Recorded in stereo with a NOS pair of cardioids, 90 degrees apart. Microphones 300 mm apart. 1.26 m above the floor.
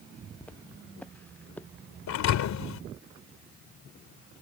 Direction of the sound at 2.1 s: 70° left.